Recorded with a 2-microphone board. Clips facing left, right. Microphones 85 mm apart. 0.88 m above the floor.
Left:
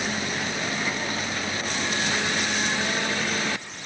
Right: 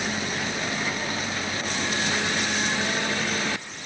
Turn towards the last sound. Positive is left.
No sound to turn to.